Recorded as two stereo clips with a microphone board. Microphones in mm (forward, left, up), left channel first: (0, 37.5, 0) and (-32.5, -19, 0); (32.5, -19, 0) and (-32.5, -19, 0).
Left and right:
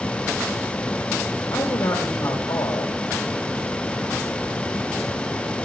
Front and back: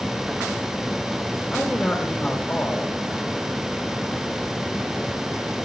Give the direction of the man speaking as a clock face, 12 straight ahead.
9 o'clock.